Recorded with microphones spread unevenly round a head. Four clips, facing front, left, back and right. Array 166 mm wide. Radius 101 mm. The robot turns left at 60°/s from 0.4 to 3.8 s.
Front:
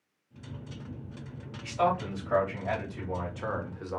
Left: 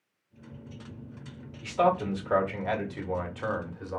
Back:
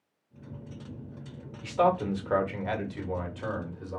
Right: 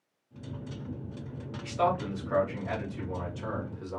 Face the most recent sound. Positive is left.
turn(degrees=40)